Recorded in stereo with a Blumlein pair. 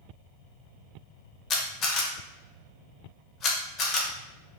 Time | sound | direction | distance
1.5 | a camera shutter | 30° left | 0.6 m